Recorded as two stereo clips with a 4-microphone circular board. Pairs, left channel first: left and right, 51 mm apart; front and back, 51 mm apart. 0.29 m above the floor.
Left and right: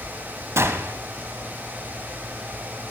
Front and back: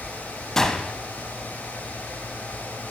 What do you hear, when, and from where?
0.6 s a gunshot: 75° right, 0.7 m